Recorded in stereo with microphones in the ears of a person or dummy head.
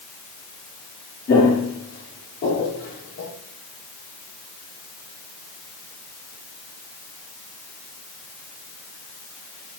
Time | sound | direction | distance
1.3 | footsteps | 45° left (ahead or behind) | 2.5 m